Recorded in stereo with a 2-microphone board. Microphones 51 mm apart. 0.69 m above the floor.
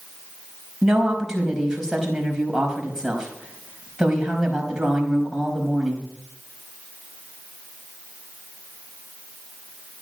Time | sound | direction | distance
0.8 | a woman speaking | 10° right (ahead or behind) | 4.5 m